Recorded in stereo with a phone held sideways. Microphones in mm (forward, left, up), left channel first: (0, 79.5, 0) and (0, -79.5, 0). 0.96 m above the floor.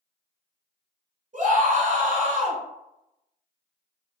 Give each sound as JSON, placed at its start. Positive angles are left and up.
{"t": 1.3, "sound": "a scream", "side_deg": -50, "distance_m": 1.7}